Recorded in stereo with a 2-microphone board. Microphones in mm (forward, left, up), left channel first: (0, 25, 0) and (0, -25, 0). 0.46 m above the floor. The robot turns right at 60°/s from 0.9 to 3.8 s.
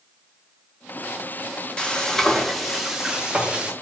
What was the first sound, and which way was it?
Frying, 20° left (ahead or behind).